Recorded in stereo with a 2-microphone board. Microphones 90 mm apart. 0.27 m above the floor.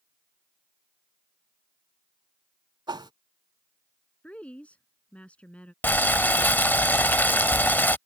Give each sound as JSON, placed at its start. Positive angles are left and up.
{"t": 2.9, "sound": "a whoosh", "side_deg": -55}
{"t": 4.2, "sound": "a woman speaking", "side_deg": 15}
{"t": 5.8, "sound": "boiling", "side_deg": 20}